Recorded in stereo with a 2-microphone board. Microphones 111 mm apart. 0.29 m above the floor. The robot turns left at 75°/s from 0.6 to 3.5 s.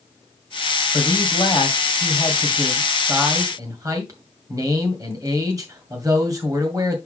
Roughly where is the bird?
No bird in this recording.